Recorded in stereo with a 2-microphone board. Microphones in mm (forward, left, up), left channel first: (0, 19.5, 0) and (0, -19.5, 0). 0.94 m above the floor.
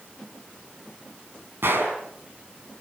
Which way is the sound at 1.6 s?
75° right (ahead or behind).